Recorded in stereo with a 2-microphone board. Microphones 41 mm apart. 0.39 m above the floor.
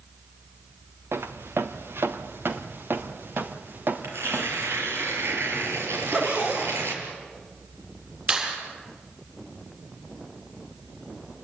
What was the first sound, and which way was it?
Footsteps, 75° right (ahead or behind).